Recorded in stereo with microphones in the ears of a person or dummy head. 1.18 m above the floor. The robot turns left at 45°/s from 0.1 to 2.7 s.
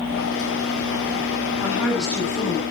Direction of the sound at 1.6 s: 165° right.